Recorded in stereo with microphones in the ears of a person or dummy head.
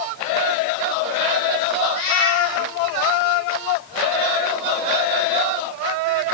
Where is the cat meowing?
80° left, 8.5 m.